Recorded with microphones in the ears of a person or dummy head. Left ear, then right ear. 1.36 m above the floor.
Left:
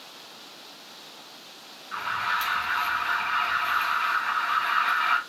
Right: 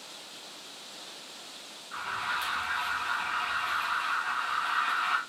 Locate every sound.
1.9 s an alarm: 75° left (ahead or behind), 3.5 m